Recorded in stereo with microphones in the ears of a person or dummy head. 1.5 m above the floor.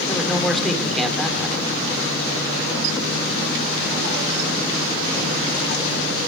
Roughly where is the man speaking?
Centre.